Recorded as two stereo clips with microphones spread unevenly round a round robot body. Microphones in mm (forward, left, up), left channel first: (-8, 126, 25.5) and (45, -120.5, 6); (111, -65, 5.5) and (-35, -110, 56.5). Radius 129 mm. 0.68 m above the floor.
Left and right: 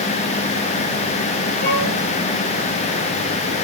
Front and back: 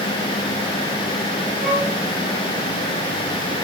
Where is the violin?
110° left, 6.5 m.